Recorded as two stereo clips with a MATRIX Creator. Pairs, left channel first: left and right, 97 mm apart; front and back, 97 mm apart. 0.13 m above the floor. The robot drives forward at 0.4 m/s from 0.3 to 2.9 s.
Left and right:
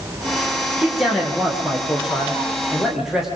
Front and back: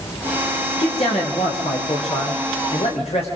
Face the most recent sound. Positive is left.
turn(degrees=-5)